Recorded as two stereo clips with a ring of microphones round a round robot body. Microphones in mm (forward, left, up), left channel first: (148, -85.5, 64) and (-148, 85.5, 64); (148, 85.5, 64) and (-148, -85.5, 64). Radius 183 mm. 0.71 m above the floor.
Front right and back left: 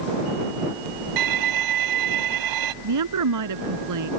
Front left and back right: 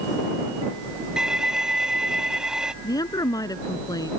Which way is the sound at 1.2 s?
120° left.